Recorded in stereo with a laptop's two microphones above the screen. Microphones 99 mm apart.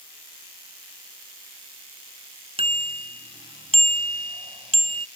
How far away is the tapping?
No tapping in this recording.